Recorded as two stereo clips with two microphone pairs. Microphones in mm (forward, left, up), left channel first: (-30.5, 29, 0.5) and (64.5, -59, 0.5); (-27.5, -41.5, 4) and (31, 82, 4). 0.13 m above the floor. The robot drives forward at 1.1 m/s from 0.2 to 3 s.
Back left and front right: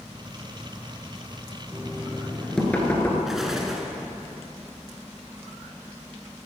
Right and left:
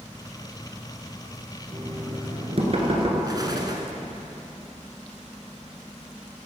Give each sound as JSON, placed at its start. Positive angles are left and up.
{"t": 1.7, "sound": "knocking", "azimuth_deg": 35, "distance_m": 2.5}
{"t": 3.3, "sound": "an explosion", "azimuth_deg": 40, "distance_m": 1.4}